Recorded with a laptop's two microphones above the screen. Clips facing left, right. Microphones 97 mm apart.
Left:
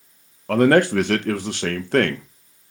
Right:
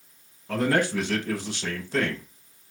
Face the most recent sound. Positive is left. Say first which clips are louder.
# left 9 dB
turn(degrees=65)  # may be behind; listen again after turning